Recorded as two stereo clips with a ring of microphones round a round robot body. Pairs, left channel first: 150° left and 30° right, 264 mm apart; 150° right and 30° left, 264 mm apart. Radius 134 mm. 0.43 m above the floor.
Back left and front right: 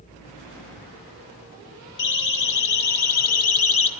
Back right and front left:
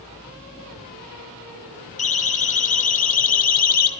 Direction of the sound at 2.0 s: 145° left.